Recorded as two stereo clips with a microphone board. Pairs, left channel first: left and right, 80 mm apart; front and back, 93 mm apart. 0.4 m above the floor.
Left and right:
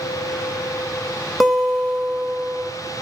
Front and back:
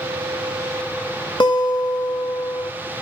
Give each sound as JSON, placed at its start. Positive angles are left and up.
{"t": 1.4, "sound": "a guitar", "azimuth_deg": 0, "distance_m": 2.5}